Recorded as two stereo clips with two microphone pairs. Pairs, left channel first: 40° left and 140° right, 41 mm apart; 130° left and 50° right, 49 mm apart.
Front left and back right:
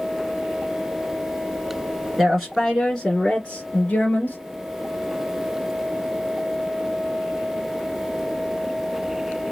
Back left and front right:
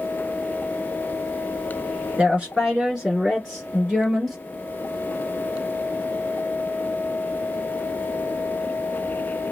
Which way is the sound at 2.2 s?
60° right.